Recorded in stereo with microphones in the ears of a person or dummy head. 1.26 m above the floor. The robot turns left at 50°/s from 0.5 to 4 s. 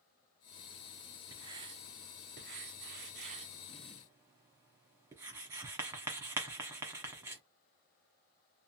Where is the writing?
20° right (ahead or behind), 1.0 m; by 7.4 s 15° right (ahead or behind), 1.0 m.